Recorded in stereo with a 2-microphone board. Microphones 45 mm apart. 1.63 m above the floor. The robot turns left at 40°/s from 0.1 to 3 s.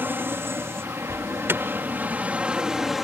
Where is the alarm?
70° right (ahead or behind); by 1.6 s 50° right (ahead or behind).